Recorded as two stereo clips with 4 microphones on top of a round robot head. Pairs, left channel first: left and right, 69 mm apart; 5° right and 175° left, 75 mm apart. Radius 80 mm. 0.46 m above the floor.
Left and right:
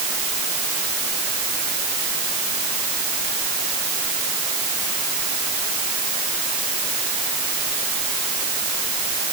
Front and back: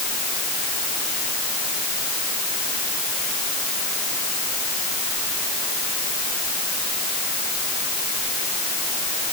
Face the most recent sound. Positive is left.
No sound to turn to.